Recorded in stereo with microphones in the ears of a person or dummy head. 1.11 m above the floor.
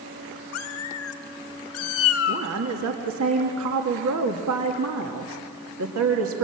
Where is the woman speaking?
75° right (ahead or behind), 2 m.